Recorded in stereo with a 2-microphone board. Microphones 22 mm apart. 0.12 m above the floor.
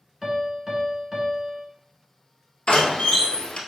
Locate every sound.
0.2 s a piano: 20° right (ahead or behind), 1.3 m
2.7 s a door slam: 55° left (ahead or behind), 1.4 m